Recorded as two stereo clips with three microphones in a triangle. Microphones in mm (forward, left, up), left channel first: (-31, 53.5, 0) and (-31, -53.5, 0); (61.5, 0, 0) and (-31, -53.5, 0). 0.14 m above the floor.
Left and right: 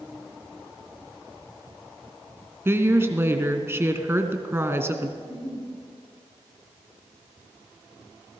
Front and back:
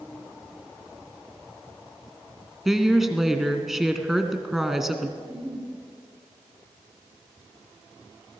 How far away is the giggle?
About 7 m.